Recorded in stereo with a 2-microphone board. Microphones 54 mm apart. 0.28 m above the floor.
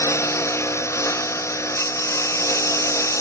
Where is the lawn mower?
60° left (ahead or behind); by 3.2 s 65° left (ahead or behind).